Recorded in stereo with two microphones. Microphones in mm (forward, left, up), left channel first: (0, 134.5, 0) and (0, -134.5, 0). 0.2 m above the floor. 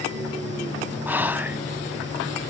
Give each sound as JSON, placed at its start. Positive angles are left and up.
{"t": 1.1, "sound": "whispering", "side_deg": -5, "distance_m": 1.1}